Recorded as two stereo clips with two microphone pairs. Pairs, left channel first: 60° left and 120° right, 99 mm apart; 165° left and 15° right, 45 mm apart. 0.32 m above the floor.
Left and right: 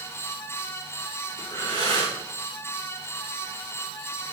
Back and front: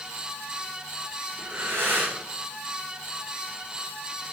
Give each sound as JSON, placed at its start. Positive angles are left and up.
{"t": 1.4, "sound": "breathing", "azimuth_deg": 20, "distance_m": 3.5}